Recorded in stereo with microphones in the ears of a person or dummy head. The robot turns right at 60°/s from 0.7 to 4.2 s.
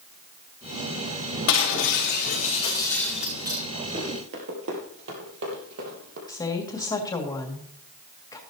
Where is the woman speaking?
20° left (ahead or behind), 2 m.